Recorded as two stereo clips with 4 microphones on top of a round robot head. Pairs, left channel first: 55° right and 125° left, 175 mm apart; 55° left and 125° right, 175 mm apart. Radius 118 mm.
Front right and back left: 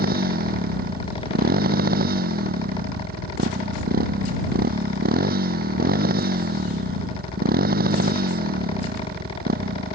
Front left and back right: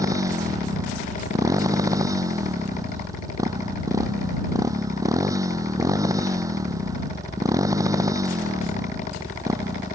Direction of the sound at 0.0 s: 165° left.